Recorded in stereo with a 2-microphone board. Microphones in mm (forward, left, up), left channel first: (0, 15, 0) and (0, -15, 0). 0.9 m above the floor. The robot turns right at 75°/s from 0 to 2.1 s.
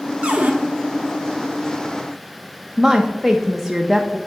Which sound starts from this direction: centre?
A woman speaking, at 2.8 s.